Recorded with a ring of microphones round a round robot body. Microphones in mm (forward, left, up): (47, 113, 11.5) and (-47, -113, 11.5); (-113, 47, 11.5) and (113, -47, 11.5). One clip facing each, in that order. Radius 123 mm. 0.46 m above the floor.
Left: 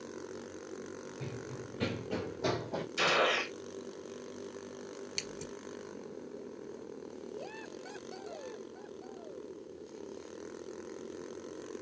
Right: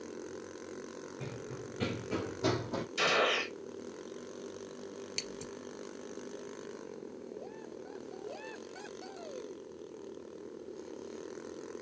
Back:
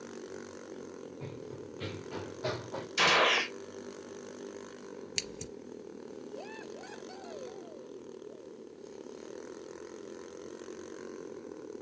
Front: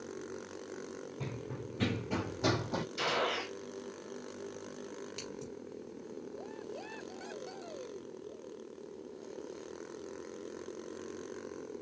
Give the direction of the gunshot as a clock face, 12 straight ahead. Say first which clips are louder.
Left 1 dB, back 8 dB; 7 o'clock.